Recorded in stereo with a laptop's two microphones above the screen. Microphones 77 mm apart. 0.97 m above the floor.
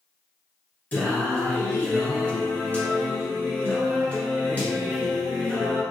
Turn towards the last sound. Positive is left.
turn(degrees=20)  # may be behind; listen again after turning